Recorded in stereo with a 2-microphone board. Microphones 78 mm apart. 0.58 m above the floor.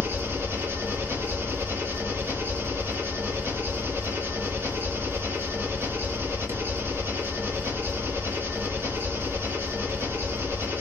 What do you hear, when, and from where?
0.0 s an engine running: 35° right (ahead or behind), 2 m